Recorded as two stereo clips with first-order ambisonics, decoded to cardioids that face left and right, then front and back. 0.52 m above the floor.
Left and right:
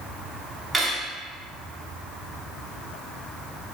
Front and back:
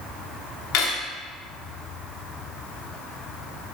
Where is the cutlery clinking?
15° right, 0.7 m.